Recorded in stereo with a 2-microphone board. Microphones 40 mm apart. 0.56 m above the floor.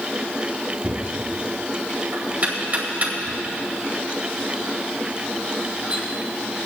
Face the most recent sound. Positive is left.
turn(degrees=-40)  # may be behind; listen again after turning